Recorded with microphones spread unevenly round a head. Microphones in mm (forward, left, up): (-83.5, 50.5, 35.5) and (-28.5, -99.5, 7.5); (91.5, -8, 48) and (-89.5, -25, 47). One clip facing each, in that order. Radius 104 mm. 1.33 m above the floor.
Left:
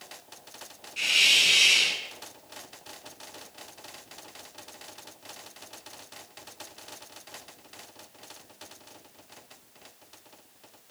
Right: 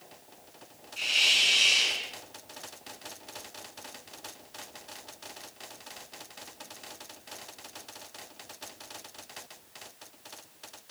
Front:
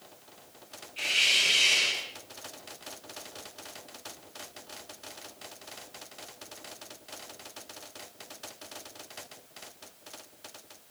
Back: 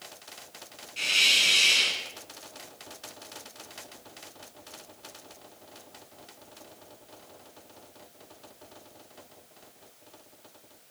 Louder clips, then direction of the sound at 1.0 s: Left 2 dB, back 1 dB; 140° left.